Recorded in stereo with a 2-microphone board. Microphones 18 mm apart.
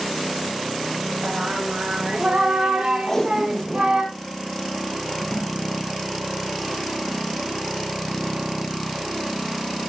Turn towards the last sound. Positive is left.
turn(degrees=25)  # may be behind; listen again after turning